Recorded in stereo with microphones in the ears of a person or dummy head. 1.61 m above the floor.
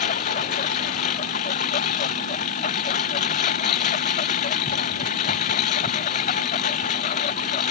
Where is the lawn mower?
35° left (ahead or behind).